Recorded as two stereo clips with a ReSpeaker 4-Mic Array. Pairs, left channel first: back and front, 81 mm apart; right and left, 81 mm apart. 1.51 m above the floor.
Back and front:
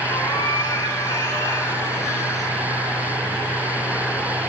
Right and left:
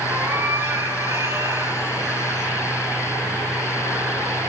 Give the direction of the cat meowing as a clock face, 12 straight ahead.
7 o'clock.